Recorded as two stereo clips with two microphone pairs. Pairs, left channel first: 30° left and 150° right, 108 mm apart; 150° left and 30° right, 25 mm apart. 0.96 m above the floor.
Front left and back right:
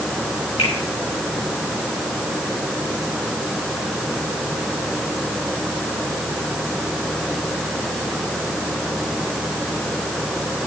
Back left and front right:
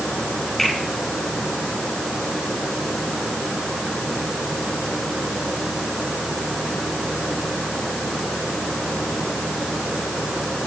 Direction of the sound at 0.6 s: 60° left.